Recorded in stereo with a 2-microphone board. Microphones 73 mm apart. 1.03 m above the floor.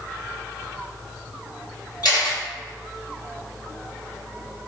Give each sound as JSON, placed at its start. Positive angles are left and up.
{"t": 2.0, "sound": "a camera shutter", "side_deg": 75, "distance_m": 1.6}